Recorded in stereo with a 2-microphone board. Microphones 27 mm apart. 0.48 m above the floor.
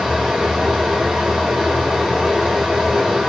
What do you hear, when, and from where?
0.0 s running water: 20° right (ahead or behind), 1.5 m